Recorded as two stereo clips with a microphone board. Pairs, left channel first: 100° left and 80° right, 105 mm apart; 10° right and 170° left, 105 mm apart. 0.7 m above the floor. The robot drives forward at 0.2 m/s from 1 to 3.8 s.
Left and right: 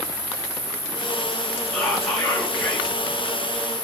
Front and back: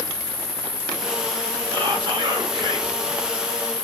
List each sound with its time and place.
0.0 s an insect: 95° left, 1.4 m; by 3.9 s 140° left, 1.6 m
1.7 s whispering: 170° right, 0.7 m